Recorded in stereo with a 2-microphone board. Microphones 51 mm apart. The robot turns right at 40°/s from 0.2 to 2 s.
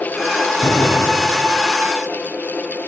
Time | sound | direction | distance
0.6 | a door slam | 65° left | 4 m